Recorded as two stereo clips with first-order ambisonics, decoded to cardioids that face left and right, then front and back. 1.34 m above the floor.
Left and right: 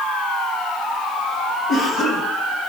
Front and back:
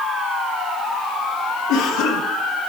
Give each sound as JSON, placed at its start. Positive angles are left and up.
{"t": 1.7, "sound": "a cough", "azimuth_deg": 30, "distance_m": 1.9}